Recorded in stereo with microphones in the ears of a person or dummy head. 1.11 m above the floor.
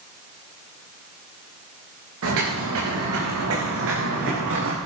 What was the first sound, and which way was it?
Footsteps, 80° right.